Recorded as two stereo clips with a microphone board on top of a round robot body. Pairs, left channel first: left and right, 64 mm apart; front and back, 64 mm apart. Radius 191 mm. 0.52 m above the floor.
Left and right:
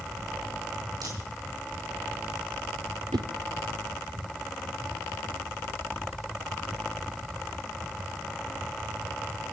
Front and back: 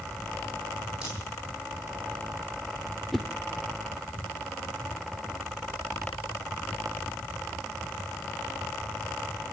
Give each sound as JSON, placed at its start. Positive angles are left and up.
{"t": 1.0, "sound": "a crack", "azimuth_deg": -100, "distance_m": 9.5}
{"t": 3.1, "sound": "a whoosh", "azimuth_deg": -90, "distance_m": 0.6}